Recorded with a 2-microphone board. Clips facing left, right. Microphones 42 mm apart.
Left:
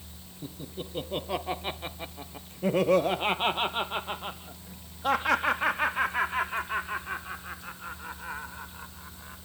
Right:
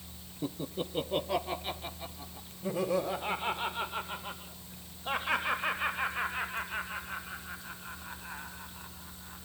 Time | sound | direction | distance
0.4 | laughter | 35° right (ahead or behind) | 1.3 m